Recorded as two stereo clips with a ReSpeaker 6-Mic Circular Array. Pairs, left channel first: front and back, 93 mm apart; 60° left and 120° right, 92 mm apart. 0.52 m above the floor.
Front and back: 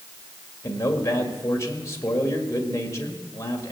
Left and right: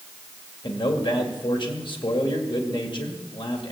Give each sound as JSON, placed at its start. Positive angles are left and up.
{"t": 0.6, "sound": "a man speaking", "azimuth_deg": 55, "distance_m": 2.0}